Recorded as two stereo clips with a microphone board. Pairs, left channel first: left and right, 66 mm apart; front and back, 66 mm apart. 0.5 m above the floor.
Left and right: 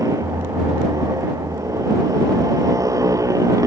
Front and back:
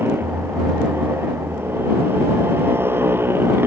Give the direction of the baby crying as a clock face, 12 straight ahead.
No baby crying in this recording.